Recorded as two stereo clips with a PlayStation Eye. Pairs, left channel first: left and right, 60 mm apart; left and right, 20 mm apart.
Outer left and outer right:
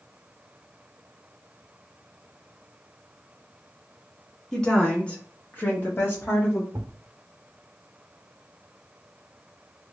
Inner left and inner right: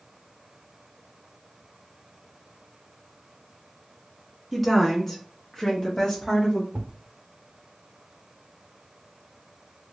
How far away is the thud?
About 0.6 m.